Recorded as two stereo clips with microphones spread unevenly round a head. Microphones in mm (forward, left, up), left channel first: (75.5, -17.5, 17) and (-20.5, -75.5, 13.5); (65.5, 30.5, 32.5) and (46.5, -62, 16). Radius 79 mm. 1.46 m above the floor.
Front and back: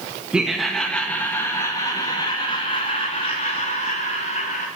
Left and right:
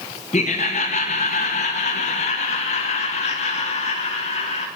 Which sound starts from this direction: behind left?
Laughter, at 0.3 s.